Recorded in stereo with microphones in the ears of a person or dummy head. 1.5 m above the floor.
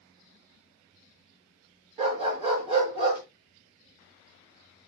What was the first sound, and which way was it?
A dog barking, 40° right (ahead or behind).